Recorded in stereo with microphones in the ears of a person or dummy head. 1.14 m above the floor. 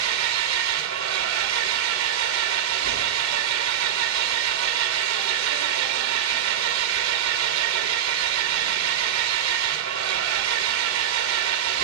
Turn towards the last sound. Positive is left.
turn(degrees=-75)  # may be behind; listen again after turning